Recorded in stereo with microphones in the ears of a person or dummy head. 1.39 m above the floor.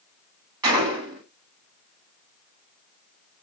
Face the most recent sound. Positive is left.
turn(degrees=-20)  # may be behind; listen again after turning